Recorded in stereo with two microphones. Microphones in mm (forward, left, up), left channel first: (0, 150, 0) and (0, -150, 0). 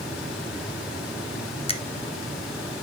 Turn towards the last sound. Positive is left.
turn(degrees=20)  # may be behind; listen again after turning